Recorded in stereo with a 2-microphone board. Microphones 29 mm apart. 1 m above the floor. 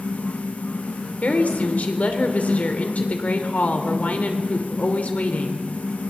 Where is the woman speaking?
65° left (ahead or behind), 3 m.